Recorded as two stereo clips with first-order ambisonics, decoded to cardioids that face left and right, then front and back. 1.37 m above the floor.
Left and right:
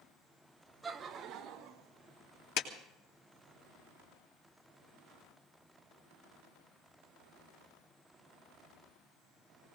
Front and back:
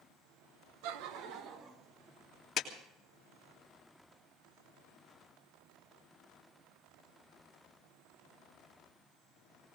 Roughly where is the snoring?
I don't hear snoring.